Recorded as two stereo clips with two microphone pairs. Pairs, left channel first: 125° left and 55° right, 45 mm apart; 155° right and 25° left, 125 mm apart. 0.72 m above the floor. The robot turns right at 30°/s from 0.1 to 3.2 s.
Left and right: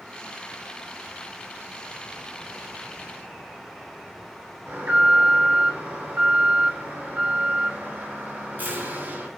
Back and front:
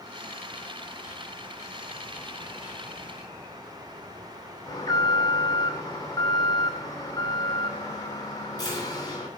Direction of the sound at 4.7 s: 100° right.